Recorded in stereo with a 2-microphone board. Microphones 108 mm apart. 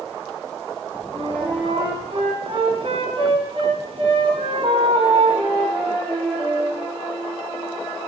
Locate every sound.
1.1 s a flute: 55° right (ahead or behind), 3 m